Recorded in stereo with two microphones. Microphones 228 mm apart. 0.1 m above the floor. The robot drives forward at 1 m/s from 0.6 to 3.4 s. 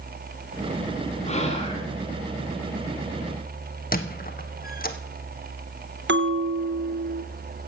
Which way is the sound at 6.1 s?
55° right (ahead or behind).